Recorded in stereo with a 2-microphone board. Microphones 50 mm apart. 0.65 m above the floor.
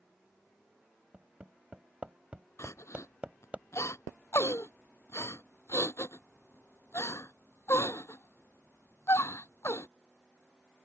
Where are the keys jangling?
No keys jangling in this recording.